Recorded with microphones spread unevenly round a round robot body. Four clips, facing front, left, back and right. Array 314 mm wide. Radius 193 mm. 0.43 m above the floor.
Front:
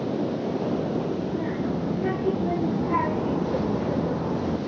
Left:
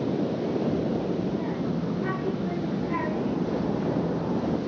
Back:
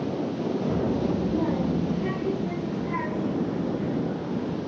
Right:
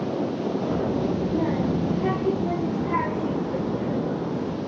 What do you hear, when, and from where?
0.7 s a child speaking: 135° right, 1.1 m; by 4.6 s 10° right, 1.9 m